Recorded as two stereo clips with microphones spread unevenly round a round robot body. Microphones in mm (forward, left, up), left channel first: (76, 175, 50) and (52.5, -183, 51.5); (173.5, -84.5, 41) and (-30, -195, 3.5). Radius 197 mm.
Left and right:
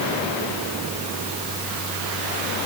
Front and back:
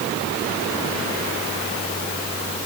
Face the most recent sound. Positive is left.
No sound to turn to.